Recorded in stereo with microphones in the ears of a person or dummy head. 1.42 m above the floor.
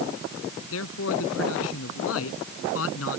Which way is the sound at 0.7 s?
75° left (ahead or behind).